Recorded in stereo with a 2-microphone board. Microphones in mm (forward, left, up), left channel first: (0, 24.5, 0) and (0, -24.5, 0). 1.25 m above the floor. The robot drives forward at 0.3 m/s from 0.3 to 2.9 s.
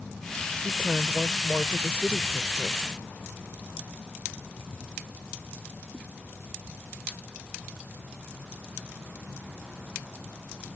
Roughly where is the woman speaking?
Right.